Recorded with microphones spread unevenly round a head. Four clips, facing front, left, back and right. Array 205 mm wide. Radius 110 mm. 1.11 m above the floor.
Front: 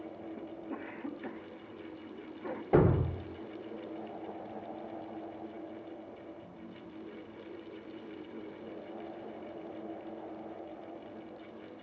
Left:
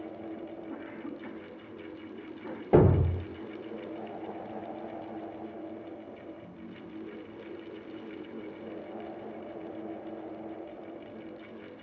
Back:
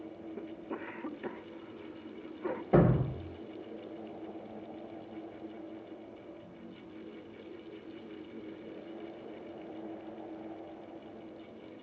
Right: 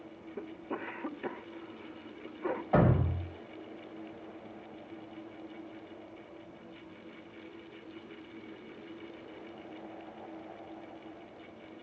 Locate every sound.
0.4 s a cough: 155° right, 1.2 m
2.7 s a thud: 105° left, 3.5 m